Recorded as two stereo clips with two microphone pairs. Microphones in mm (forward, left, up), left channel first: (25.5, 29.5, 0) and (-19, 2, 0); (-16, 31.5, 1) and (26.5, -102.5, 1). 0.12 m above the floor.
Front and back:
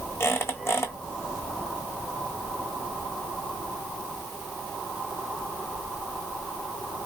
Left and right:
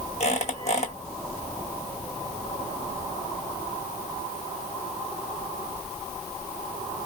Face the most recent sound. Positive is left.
turn(degrees=70)